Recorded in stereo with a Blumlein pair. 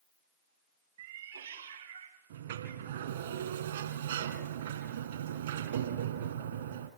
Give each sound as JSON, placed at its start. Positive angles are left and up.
{"t": 1.0, "sound": "a cat meowing", "azimuth_deg": -65, "distance_m": 2.0}
{"t": 2.3, "sound": "a sliding door", "azimuth_deg": -60, "distance_m": 2.5}